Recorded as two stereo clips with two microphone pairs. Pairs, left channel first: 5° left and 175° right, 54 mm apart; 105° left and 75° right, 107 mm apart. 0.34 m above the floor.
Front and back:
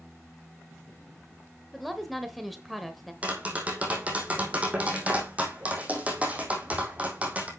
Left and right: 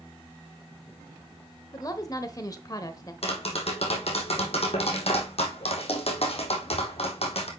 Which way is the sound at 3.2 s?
120° left.